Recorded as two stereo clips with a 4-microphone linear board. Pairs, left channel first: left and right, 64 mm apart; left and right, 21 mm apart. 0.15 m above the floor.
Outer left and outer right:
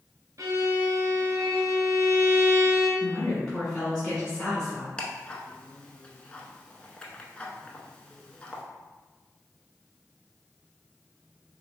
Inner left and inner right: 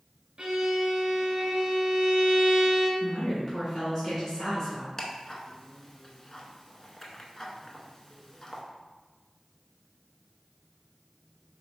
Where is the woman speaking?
10° left (ahead or behind), 1.7 m.